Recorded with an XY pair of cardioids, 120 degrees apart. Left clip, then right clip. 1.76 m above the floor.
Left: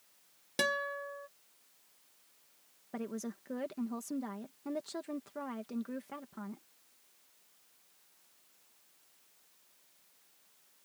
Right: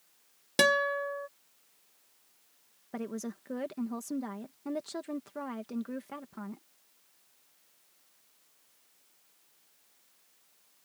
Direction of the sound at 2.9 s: 15° right.